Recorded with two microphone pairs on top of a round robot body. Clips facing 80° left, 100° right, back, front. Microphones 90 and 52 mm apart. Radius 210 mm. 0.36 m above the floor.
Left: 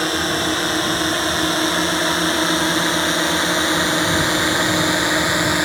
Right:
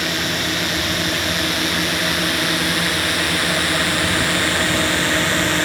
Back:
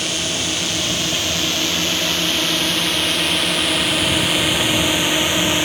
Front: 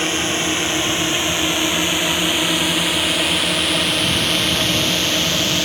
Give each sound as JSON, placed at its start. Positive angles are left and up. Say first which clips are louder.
{"t": 0.0, "sound": "a drone", "louder": "left 3 dB, front 3 dB", "azimuth_deg": 45}